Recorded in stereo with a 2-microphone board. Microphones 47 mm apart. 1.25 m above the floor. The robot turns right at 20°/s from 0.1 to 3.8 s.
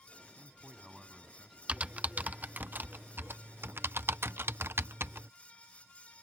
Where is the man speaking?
20° right (ahead or behind); by 1.6 s 5° left (ahead or behind).